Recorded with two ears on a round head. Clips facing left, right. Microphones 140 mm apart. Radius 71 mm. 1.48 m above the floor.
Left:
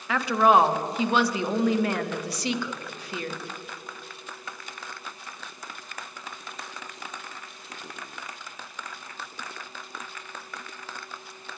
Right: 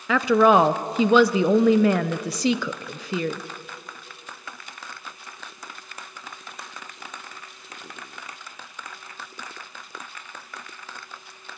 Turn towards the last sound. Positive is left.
turn(degrees=-70)  # may be behind; listen again after turning